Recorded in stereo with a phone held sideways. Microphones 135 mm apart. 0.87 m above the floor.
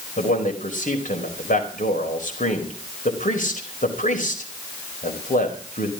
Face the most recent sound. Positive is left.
turn(degrees=80)